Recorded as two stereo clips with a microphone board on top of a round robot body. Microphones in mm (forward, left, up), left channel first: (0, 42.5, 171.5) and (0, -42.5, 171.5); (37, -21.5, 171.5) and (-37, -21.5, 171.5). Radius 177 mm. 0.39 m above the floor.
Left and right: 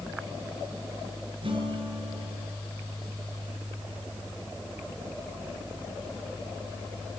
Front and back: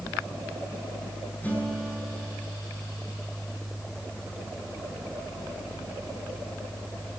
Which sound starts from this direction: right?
A guitar, at 1.4 s.